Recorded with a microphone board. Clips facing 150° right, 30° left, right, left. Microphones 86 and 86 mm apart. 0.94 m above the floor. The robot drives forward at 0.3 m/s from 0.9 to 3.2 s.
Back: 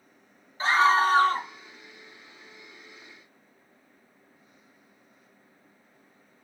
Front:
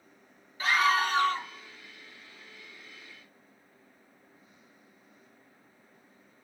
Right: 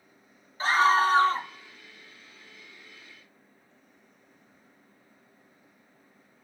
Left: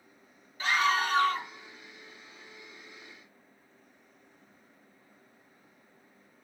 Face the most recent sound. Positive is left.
turn(degrees=-155)